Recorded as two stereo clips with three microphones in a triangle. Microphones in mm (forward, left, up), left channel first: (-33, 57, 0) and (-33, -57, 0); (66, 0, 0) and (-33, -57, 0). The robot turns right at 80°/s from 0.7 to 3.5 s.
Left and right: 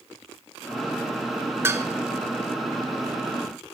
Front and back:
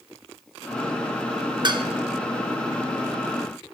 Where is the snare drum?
No snare drum in this recording.